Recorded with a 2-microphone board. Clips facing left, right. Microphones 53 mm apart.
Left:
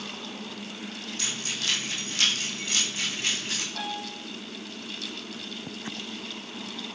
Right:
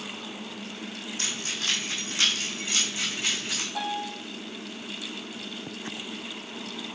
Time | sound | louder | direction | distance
1.2 | keys jangling | even | 35° right (ahead or behind) | 3 m
3.8 | a piano | right 3 dB | 35° right (ahead or behind) | 4 m